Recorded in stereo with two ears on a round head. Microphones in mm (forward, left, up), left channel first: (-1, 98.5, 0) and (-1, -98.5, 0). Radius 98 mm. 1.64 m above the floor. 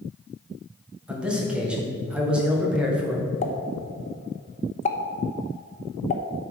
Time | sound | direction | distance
1.1 | a man speaking | 5° right (ahead or behind) | 1.8 m
3.4 | a pop | 35° left (ahead or behind) | 0.9 m